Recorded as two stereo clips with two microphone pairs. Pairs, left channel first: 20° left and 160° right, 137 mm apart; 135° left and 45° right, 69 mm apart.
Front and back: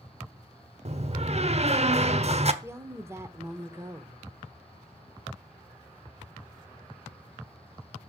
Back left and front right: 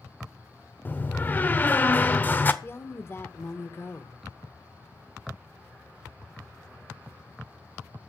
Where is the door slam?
170° right, 1.1 m.